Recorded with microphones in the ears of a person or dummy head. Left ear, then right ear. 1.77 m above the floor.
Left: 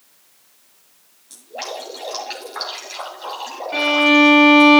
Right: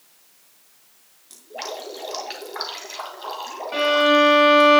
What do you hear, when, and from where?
1.3 s dripping: 5° right (ahead or behind), 2 m
3.7 s a violin: 25° right (ahead or behind), 3.5 m